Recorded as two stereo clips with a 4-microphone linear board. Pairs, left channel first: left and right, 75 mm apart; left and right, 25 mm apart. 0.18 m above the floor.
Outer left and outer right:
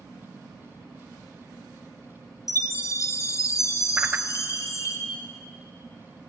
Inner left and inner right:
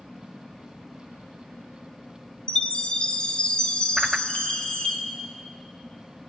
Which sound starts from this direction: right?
A whoosh, at 4.0 s.